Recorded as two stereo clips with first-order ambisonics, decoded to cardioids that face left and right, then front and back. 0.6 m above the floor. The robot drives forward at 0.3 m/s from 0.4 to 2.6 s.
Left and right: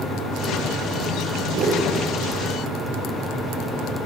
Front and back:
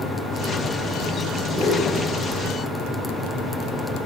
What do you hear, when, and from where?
1.5 s a whoosh: 65° right, 2 m; by 1.9 s 70° right, 2 m